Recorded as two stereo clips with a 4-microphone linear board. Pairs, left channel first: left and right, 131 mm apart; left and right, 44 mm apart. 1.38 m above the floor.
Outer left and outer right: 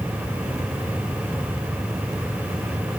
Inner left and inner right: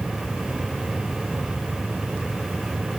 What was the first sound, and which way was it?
Only background noise.